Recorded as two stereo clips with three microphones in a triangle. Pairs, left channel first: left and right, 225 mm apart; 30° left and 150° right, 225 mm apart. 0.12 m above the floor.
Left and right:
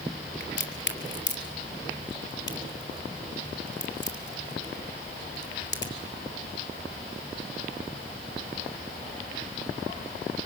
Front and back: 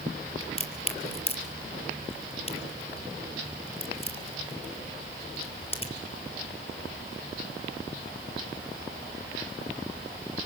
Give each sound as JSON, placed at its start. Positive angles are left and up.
{"t": 0.4, "sound": "a crack", "azimuth_deg": 85, "distance_m": 2.0}